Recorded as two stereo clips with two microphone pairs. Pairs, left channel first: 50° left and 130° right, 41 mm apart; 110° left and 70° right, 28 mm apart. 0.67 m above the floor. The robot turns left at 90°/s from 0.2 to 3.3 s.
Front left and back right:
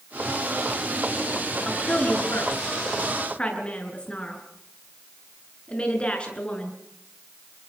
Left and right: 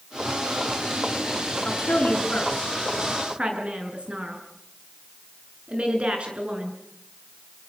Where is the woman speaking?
130° left, 8 m; by 6.8 s 20° right, 8 m.